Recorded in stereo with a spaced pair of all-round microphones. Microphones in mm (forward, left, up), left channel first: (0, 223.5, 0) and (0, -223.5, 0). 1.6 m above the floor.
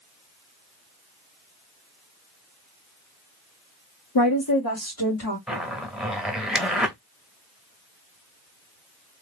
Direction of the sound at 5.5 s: Centre (ahead or behind).